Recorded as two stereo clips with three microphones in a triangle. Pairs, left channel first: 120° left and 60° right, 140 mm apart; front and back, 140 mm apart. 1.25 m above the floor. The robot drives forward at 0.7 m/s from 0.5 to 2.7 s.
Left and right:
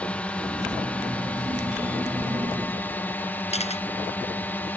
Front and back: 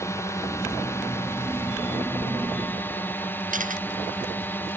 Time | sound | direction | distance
0.0 | a drone | 50° left | ?
3.5 | a camera shutter | 160° left | ?